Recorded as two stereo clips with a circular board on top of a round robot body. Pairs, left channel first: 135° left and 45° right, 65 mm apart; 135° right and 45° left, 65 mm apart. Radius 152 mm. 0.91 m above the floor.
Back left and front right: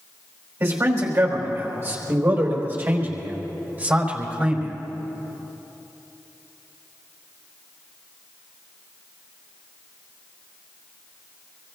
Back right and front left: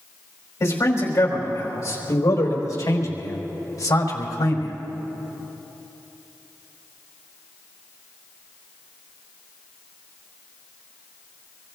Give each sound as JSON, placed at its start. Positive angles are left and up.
{"t": 0.6, "sound": "a man speaking", "azimuth_deg": -90, "distance_m": 5.0}